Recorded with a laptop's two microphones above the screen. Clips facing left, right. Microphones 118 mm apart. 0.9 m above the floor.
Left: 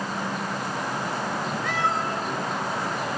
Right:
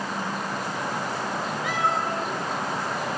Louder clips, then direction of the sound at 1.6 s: Right 2 dB; 10° right (ahead or behind).